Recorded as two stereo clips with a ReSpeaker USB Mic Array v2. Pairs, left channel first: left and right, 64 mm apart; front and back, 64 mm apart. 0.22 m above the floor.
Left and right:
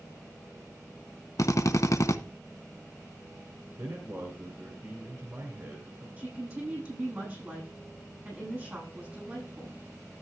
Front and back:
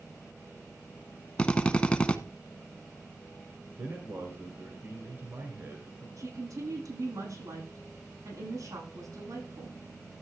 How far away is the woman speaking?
About 9.5 m.